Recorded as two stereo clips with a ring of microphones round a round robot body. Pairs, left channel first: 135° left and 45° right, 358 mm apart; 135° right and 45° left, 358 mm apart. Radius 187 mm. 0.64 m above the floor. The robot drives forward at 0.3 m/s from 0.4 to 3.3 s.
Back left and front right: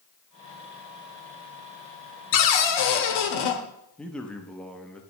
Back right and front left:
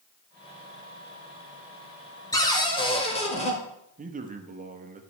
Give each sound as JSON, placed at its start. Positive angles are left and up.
{"t": 2.3, "sound": "a cupboard door", "azimuth_deg": 145, "distance_m": 1.1}
{"t": 4.0, "sound": "a man speaking", "azimuth_deg": 55, "distance_m": 0.9}